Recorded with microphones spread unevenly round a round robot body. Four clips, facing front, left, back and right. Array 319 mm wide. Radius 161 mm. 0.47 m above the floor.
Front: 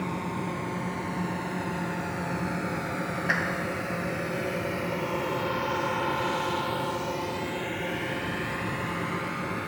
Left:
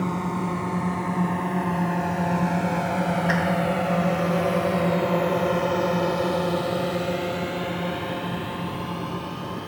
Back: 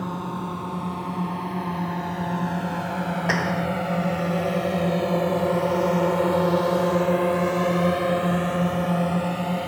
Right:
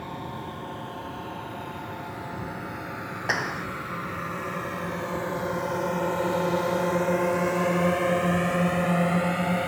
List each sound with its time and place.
0.0 s a drone: 100° left; by 9.7 s 135° right
3.3 s a clap: 165° right